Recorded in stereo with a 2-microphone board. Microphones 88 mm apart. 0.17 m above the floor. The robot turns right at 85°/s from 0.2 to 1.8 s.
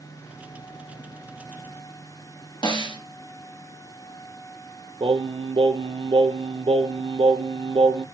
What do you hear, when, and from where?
2.6 s a snare drum: 60° left (ahead or behind), 1.9 m
5.0 s singing: 80° right, 0.9 m